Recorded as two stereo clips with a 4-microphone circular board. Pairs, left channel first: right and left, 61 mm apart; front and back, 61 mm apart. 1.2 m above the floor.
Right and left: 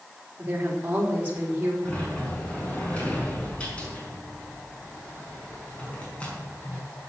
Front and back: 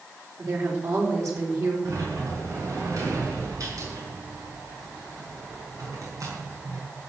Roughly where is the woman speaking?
Behind left.